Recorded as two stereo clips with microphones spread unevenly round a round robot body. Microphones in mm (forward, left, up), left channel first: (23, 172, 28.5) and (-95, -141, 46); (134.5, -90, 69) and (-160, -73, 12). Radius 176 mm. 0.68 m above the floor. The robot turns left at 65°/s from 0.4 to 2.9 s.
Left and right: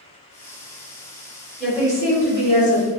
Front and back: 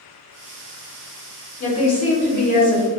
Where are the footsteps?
No footsteps in this recording.